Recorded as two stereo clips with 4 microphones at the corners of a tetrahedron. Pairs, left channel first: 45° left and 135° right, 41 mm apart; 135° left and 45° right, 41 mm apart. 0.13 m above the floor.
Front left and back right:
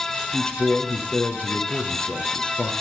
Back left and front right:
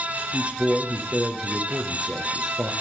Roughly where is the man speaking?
Ahead.